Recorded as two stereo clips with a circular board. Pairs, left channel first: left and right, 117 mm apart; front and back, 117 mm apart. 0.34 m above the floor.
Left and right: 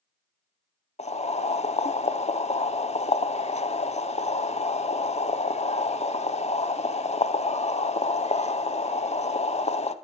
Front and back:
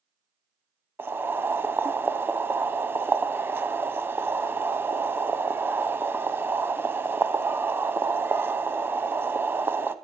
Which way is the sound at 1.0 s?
110° left.